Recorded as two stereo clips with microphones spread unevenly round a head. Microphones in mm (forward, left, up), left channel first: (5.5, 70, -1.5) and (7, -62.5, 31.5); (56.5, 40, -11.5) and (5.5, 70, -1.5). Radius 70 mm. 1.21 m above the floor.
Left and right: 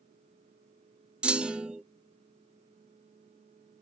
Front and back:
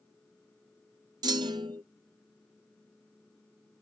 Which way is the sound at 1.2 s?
175° right.